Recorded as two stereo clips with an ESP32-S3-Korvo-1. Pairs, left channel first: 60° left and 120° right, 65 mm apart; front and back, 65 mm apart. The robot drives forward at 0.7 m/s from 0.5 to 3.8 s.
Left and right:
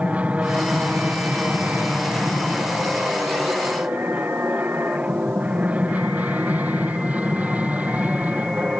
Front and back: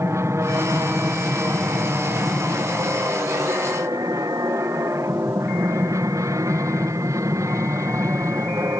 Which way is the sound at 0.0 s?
Straight behind.